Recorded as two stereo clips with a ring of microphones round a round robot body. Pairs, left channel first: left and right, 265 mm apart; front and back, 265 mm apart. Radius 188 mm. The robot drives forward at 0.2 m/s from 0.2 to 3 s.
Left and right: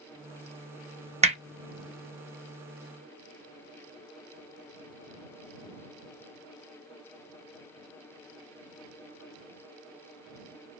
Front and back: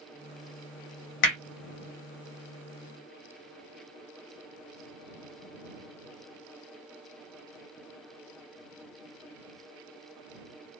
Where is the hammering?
20° right, 0.8 m.